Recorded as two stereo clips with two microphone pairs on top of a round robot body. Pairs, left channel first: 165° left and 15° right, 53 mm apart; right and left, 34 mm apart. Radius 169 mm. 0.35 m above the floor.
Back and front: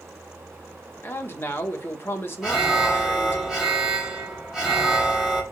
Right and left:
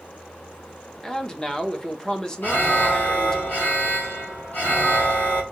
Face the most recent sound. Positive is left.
turn(degrees=-100)